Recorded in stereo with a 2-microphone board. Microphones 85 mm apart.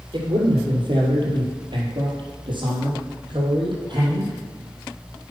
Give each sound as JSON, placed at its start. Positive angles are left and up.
{"t": 0.1, "sound": "a man speaking", "side_deg": -60, "distance_m": 3.0}